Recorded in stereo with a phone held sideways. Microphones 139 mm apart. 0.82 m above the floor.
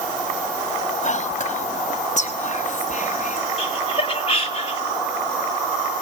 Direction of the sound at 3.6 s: 45° left (ahead or behind).